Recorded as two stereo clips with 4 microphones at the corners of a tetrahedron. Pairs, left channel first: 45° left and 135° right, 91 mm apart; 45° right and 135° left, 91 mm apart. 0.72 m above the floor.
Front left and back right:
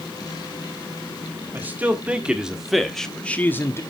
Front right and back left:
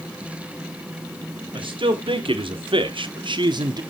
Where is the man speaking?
155° left, 1.7 m; by 3.8 s 100° left, 1.0 m.